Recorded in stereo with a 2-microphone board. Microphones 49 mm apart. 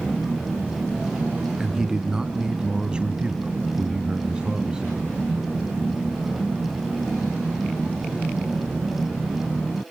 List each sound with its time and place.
1.6 s a man speaking: 10° right (ahead or behind), 2.5 m; by 5.1 s 15° right (ahead or behind), 3 m